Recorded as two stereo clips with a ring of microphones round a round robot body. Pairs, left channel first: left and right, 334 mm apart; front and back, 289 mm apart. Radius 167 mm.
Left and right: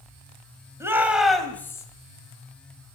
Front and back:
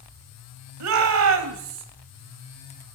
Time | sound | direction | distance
0.8 | a shout | 170° right | 2.5 m